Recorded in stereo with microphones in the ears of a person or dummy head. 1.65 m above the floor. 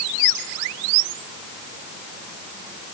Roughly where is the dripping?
No dripping in this recording.